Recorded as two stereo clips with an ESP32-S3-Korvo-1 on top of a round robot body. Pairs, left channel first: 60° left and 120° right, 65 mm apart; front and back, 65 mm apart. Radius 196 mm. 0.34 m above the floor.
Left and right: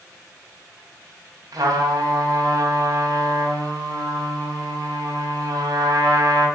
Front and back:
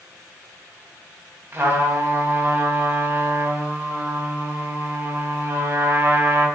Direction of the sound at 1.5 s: 125° right.